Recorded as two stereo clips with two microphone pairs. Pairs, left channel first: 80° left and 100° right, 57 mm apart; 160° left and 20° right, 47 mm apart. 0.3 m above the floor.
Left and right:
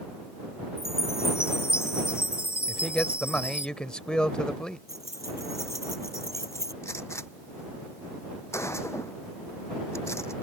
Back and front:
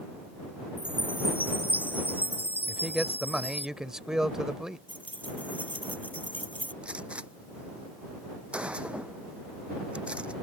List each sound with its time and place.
0.8 s a chime: 115° left
2.7 s a man speaking: 30° left
4.9 s keys jangling: 105° left
6.8 s a gunshot: 45° left